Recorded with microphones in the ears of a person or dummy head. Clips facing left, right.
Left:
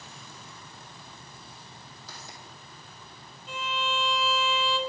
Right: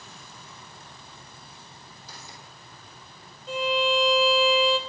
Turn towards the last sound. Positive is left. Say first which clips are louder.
# right 9 dB
turn(degrees=-35)  # may be behind; listen again after turning